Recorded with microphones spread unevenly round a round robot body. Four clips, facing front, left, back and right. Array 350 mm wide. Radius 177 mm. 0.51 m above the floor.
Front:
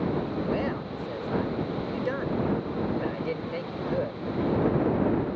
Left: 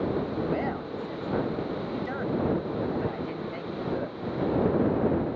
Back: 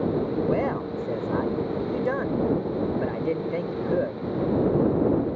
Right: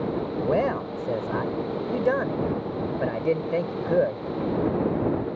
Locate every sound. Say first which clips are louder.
0.4 s a man speaking: right 6 dB, back 4 dB; 120° right